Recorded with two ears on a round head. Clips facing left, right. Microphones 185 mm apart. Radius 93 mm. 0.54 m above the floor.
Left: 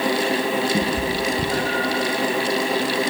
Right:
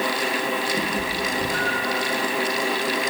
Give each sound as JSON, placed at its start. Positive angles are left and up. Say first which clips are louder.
{"t": 0.7, "sound": "a cat meowing", "louder": "left 4 dB", "side_deg": 45, "distance_m": 5.0}